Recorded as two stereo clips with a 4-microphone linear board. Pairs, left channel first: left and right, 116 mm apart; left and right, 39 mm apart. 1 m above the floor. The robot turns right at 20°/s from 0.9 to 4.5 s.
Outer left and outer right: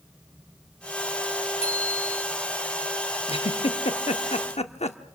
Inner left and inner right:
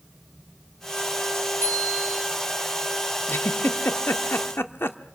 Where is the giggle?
55° left (ahead or behind), 1.0 m; by 5.0 s 65° left (ahead or behind), 1.0 m.